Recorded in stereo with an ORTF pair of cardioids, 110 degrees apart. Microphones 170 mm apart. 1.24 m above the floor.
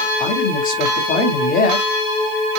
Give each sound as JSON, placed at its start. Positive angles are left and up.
{"t": 0.2, "sound": "a man speaking", "azimuth_deg": 55, "distance_m": 3.5}